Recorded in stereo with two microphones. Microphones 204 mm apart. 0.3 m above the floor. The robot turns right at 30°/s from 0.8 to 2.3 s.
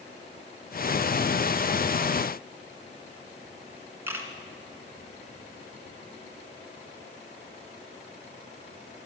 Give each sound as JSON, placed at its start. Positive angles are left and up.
{"t": 4.1, "sound": "a camera shutter", "side_deg": -10, "distance_m": 1.6}